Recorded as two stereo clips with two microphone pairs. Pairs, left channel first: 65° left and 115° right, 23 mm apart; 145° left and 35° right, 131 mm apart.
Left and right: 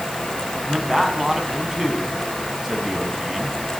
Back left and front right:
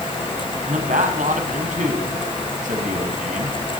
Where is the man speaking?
40° right, 5 m.